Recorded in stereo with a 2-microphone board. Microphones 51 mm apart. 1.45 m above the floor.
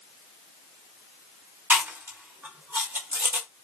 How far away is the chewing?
About 0.9 m.